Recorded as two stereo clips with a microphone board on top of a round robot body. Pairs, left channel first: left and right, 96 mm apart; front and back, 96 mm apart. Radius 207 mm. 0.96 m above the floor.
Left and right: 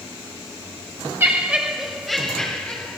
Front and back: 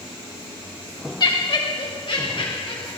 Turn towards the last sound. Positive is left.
turn(degrees=15)